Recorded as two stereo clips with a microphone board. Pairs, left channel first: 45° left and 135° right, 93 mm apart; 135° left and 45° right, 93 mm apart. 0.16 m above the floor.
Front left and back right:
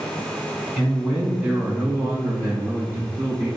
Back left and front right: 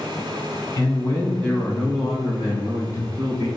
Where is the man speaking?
155° left, 1.2 m; by 3.5 s 70° right, 1.3 m.